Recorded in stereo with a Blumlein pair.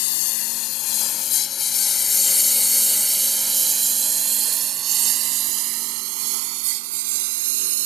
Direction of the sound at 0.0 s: 45° left.